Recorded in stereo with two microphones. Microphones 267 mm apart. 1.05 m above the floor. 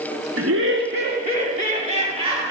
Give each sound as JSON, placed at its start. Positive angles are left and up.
{"t": 0.4, "sound": "laughter", "side_deg": -60, "distance_m": 1.3}